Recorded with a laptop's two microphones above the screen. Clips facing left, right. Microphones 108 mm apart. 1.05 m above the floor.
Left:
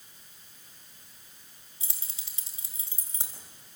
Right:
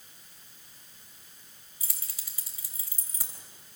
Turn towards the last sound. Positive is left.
turn(degrees=20)  # may be behind; listen again after turning